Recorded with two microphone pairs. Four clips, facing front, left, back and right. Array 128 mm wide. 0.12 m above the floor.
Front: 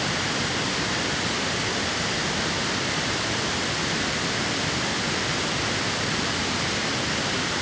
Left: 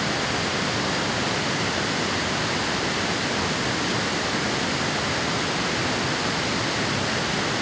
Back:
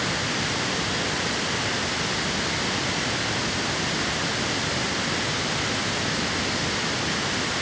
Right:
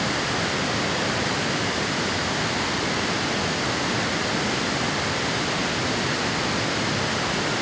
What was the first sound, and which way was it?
Only background noise.